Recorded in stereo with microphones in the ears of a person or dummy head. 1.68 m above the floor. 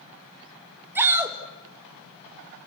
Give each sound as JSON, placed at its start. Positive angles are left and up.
{"t": 0.9, "sound": "a shout", "side_deg": -10, "distance_m": 2.5}